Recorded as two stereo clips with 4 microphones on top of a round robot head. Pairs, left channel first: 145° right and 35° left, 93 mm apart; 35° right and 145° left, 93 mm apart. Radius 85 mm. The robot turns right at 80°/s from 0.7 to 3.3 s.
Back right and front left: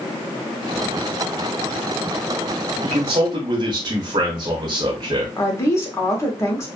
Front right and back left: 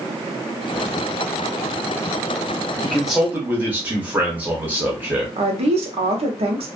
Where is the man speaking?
40° left, 0.7 m; by 5.3 s 75° left, 0.7 m.